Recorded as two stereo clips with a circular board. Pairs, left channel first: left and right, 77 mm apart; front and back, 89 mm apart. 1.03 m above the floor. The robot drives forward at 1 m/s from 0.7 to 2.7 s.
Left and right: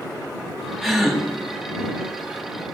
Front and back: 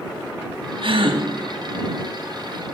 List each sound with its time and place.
0.8 s a gasp: straight behind, 2 m